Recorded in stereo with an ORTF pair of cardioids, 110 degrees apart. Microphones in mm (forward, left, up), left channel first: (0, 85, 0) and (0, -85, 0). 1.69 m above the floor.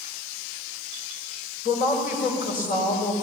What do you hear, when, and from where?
1.6 s a woman speaking: 55° left, 6 m